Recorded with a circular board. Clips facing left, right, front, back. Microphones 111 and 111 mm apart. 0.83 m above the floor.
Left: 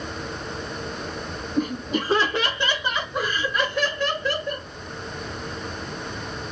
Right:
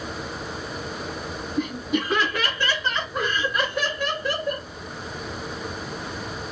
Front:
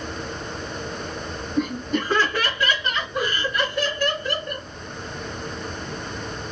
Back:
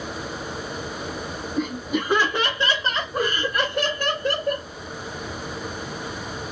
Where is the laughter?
90° left, 1.0 m; by 4.7 s 160° right, 1.5 m.